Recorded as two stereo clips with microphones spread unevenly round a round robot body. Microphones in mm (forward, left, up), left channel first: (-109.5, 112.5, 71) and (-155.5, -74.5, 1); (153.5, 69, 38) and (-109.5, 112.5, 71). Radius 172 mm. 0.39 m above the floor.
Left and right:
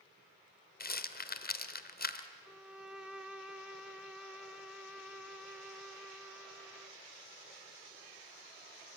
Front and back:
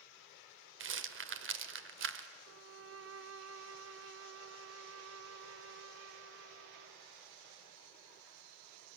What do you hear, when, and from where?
0.8 s a rattle: 125° left, 1.2 m
2.5 s a violin: 165° right, 0.8 m